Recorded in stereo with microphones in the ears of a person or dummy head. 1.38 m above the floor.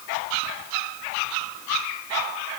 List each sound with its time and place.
Only background noise.